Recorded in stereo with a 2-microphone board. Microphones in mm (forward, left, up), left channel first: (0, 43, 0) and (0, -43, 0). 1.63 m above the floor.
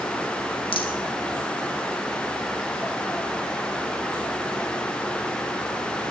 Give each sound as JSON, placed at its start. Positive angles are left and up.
{"t": 0.7, "sound": "a rattle", "side_deg": 80, "distance_m": 2.0}